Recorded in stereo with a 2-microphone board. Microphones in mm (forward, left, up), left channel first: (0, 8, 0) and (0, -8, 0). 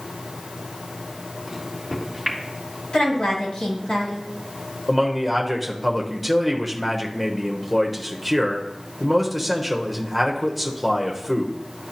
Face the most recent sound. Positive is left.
turn(degrees=-5)  # may be behind; listen again after turning